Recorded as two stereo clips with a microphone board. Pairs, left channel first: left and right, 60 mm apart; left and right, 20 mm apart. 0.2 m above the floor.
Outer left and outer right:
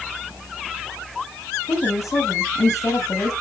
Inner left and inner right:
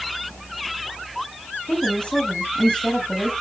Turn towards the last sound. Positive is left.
turn(degrees=65)  # may be behind; listen again after turning